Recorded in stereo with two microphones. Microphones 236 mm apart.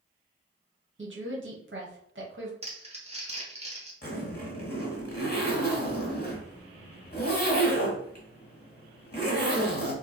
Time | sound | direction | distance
1.0 | a woman speaking | 55° right (ahead or behind) | 0.8 m
2.6 | crumpling | 25° right (ahead or behind) | 0.9 m
4.0 | a zipper | 45° left (ahead or behind) | 1.3 m